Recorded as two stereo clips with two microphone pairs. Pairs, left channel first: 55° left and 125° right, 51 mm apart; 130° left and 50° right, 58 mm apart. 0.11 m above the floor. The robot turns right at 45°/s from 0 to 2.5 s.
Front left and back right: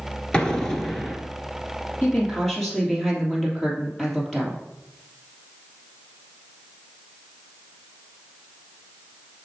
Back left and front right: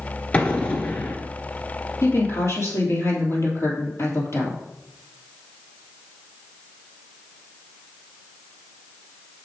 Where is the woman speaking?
115° left, 2.5 m; by 4.6 s 135° left, 2.5 m.